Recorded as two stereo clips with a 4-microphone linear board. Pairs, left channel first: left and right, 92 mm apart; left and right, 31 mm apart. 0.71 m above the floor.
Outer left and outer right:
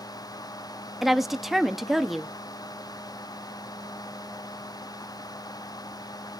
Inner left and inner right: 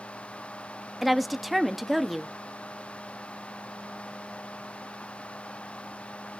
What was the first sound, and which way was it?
A woman speaking, centre (ahead or behind).